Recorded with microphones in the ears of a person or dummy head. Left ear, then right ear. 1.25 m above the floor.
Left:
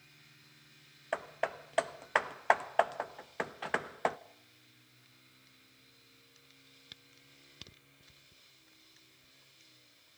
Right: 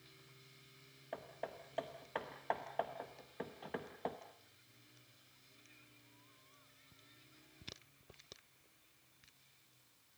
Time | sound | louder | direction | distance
1.1 | hammering | left 11 dB | 50° left (ahead or behind) | 0.7 m